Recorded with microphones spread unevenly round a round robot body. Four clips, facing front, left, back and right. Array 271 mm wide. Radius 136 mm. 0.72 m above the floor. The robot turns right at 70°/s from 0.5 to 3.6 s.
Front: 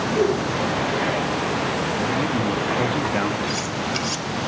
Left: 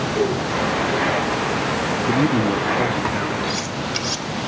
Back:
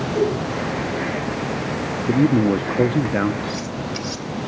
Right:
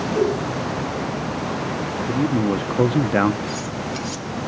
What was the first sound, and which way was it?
A whoosh, 100° right.